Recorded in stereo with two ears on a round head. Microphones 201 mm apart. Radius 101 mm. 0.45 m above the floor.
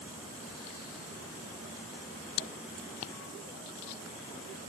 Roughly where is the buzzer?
No buzzer in this recording.